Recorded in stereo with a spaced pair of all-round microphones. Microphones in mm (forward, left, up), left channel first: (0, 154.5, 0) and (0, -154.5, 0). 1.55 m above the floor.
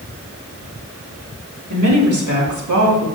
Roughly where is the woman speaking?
Right.